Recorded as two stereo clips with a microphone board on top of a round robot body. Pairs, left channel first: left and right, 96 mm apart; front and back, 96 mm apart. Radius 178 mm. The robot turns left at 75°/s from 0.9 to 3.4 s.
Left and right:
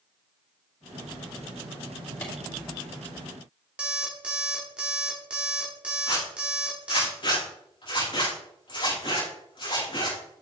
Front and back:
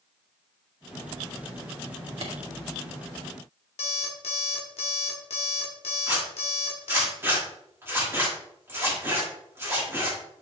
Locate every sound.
2.2 s a clap: 165° left, 2.5 m; by 2.3 s 155° left, 2.5 m
3.8 s an alarm clock: 10° right, 1.1 m
6.1 s a zipper: 115° left, 5 m